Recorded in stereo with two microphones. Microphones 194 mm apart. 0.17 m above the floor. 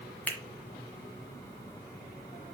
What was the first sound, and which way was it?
A finger snap, 10° left (ahead or behind).